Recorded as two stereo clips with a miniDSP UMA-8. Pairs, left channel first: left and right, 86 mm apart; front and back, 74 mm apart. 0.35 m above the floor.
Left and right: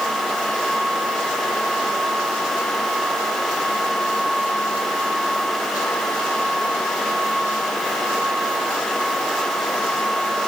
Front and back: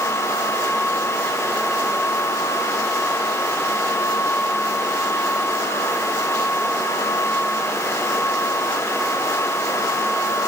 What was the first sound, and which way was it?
Only background noise.